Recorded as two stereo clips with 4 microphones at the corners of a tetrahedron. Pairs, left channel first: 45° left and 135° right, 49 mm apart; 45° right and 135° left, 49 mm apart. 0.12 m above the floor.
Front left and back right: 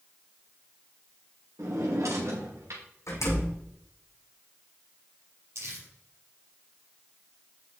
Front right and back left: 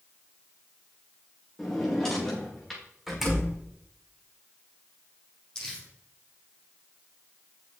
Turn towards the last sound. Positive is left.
turn(degrees=-120)